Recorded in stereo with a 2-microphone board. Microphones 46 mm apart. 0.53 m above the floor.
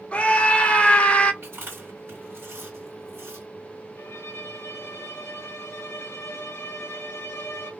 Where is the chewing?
55° right (ahead or behind), 2 m.